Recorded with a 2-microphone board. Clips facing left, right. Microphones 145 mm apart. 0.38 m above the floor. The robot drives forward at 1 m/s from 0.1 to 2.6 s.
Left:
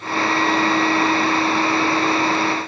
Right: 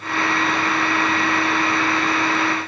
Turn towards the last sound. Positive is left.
No sound to turn to.